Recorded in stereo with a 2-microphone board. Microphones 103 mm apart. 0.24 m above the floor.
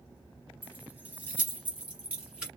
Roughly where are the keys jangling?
Centre.